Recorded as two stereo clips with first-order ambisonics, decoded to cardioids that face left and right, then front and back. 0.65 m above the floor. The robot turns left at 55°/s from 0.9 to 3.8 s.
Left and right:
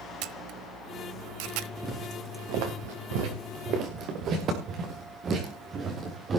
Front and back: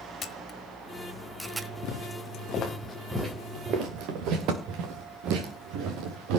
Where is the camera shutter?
60° right, 1.3 m; by 1.7 s 105° right, 1.3 m.